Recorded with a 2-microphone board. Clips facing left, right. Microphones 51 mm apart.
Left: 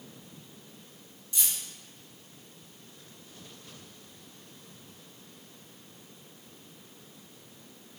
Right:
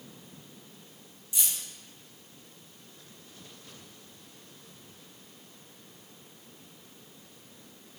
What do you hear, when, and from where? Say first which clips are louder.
1.3 s keys jangling: even; 10° right (ahead or behind), 1.0 m